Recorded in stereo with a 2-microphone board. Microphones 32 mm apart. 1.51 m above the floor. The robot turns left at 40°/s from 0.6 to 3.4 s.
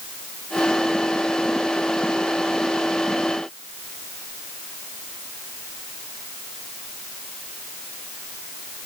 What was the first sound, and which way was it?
Only background noise.